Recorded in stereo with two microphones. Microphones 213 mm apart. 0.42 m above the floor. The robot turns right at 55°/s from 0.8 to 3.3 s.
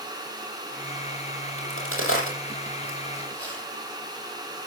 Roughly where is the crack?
Left.